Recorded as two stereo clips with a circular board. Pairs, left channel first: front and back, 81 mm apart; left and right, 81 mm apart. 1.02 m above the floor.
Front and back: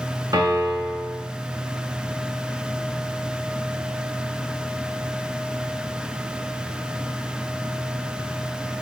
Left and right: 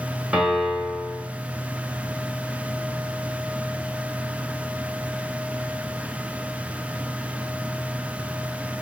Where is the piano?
170° right, 1.1 m.